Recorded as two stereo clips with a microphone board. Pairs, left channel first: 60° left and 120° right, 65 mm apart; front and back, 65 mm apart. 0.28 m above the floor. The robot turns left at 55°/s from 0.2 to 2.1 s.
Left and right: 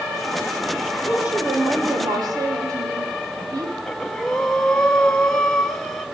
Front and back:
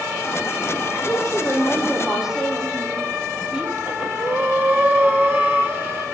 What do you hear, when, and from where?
1.0 s a woman speaking: 40° right, 9 m; by 3.8 s 100° right, 9 m
3.9 s breathing: 135° left, 2 m